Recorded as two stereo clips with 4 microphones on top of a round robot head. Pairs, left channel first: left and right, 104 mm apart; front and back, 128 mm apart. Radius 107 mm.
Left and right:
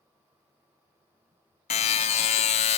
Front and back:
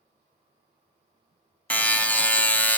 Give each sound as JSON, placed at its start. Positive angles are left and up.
{"t": 1.7, "sound": "a buzzer", "azimuth_deg": 75, "distance_m": 0.6}